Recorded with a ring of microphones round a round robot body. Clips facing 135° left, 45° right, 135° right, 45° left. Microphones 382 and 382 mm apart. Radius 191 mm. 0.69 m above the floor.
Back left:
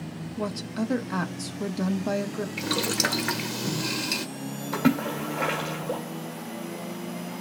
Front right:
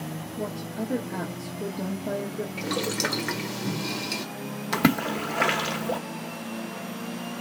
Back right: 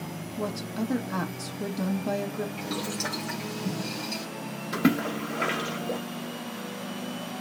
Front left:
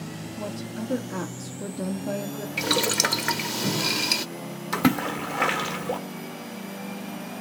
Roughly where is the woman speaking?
Behind.